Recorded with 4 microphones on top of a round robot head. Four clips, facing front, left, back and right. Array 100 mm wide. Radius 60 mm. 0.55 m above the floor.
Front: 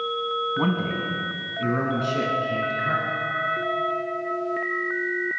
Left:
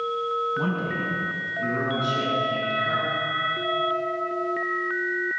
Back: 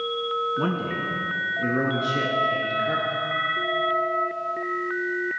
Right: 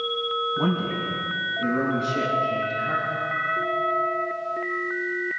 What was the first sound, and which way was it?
A man speaking, 10° right.